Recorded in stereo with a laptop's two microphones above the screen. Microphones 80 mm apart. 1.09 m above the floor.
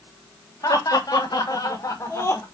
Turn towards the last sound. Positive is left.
turn(degrees=30)  # may be behind; listen again after turning